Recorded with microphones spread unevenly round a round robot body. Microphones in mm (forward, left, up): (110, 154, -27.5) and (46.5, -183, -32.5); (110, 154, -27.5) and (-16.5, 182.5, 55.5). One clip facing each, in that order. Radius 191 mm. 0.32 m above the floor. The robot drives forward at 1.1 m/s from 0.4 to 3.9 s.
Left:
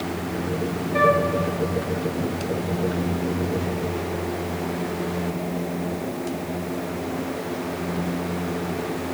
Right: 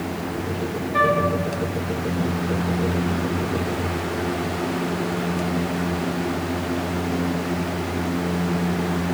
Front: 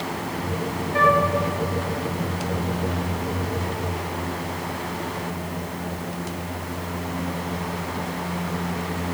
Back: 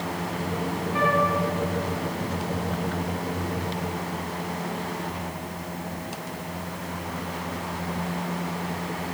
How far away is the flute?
About 2.5 m.